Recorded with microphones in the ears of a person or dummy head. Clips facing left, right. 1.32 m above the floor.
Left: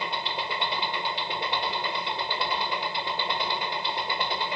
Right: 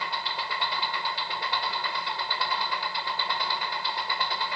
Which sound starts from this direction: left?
An engine running, at 0.0 s.